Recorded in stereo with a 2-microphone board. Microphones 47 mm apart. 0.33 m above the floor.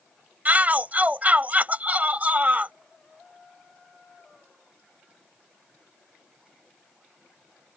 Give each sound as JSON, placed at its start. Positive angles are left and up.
{"t": 0.5, "sound": "a shout", "side_deg": -35}